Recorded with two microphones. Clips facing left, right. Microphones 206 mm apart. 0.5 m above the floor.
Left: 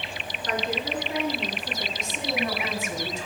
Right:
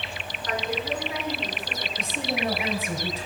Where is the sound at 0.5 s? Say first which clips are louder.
Even; 30° left (ahead or behind), 6 m.